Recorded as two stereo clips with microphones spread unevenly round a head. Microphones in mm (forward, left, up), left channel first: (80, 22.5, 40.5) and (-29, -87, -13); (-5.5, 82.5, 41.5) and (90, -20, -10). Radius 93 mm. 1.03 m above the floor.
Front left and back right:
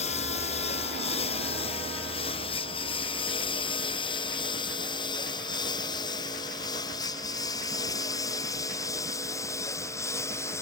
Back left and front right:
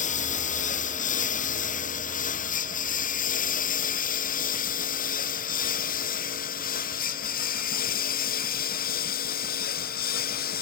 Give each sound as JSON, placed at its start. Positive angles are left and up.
{"t": 0.0, "sound": "a lawn mower", "azimuth_deg": 105}